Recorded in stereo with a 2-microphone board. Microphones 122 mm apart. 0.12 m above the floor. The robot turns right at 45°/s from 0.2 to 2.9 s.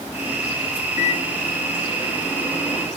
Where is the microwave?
95° left, 4.5 m; by 2.9 s straight behind, 4.5 m.